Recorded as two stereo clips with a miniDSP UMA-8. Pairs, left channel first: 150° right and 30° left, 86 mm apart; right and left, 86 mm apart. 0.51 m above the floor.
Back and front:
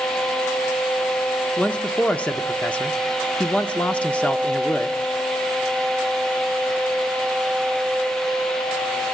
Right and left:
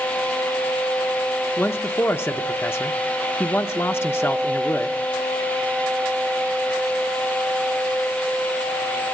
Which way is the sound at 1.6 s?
95° right.